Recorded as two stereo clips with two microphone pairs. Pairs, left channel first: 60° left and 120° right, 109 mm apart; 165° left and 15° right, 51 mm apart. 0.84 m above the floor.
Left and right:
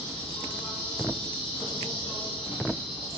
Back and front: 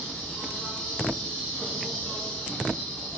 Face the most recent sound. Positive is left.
turn(degrees=100)